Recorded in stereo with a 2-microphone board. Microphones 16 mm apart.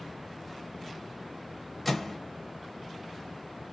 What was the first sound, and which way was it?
A microwave, 5° left (ahead or behind).